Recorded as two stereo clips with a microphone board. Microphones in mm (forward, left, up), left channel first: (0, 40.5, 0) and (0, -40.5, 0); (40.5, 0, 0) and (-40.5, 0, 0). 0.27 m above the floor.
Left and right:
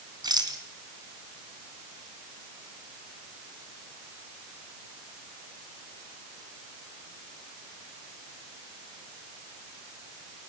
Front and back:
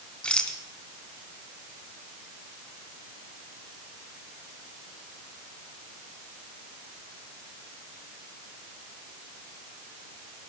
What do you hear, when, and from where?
0.2 s a rattle: 75° right, 2.5 m